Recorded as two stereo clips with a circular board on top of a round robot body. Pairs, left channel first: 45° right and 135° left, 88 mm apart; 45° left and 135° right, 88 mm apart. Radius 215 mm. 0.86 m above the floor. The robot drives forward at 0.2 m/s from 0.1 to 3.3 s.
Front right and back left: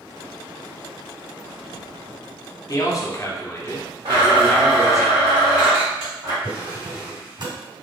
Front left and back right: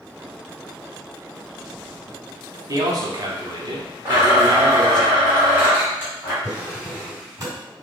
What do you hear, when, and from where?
2.7 s a man speaking: 90° right, 0.9 m; by 5.0 s 100° right, 0.9 m
4.0 s a blender: 160° left, 1.4 m
6.4 s a drawer: 175° left, 1.7 m